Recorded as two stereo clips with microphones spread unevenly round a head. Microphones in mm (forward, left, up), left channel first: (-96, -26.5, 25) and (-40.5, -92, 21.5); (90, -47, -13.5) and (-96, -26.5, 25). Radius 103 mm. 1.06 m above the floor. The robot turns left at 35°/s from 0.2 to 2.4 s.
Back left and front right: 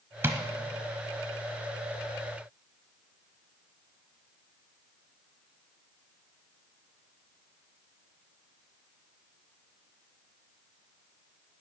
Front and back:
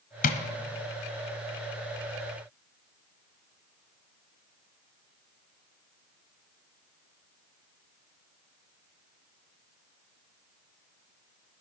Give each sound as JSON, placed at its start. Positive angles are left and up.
{"t": 0.2, "sound": "tapping", "azimuth_deg": -5, "distance_m": 0.9}